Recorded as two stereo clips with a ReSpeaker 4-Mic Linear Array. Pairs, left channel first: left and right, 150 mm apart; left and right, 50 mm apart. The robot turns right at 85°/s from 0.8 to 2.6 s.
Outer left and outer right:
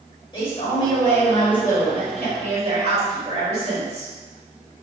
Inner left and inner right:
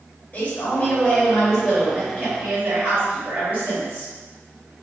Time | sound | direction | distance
0.3 | a man speaking | 130° left | 1.8 m